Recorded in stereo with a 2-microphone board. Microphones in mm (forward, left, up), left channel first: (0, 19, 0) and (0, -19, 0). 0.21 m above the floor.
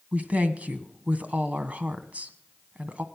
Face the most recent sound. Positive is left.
turn(degrees=-40)  # may be behind; listen again after turning